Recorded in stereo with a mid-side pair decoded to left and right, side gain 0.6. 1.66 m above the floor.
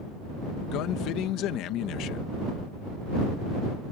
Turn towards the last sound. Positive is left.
turn(degrees=65)